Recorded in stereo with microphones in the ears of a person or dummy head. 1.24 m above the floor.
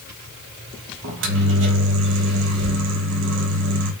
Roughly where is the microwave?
Right.